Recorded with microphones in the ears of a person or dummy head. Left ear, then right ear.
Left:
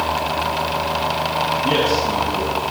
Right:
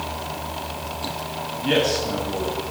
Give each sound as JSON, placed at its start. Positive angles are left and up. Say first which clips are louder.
{"t": 1.6, "sound": "a man speaking", "louder": "right 1 dB", "side_deg": -60, "distance_m": 8.0}